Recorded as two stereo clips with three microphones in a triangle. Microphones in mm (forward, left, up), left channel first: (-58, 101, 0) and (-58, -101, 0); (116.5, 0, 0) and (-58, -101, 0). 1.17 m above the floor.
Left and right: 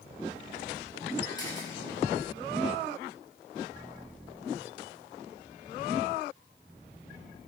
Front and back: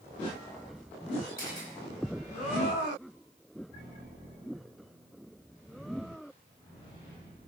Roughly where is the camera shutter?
Ahead.